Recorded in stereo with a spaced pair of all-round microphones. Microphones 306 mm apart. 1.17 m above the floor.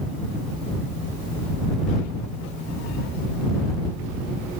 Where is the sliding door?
No sliding door in this recording.